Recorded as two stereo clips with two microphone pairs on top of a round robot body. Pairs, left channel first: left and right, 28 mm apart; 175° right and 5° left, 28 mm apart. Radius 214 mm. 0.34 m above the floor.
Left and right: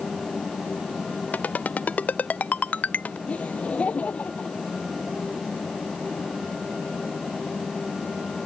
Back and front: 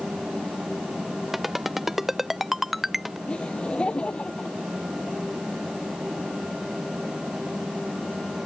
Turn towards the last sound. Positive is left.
turn(degrees=125)